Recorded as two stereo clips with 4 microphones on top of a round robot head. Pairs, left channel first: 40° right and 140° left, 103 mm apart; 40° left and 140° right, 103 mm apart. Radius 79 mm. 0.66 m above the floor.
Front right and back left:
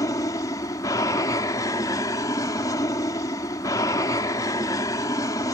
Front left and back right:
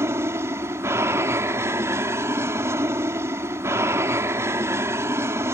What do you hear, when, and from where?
0.0 s an aircraft: 85° right